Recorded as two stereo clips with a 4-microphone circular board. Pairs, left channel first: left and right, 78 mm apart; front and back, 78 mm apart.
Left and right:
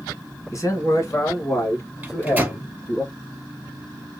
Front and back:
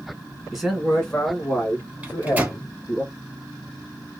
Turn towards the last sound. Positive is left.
turn(degrees=-135)